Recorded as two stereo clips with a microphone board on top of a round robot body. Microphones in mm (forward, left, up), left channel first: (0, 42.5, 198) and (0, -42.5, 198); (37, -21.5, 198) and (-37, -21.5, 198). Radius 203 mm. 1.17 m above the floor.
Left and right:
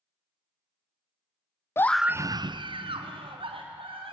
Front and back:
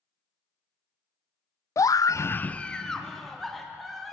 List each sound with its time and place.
1.8 s a scream: 35° left, 0.6 m; by 4.1 s 90° right, 2.5 m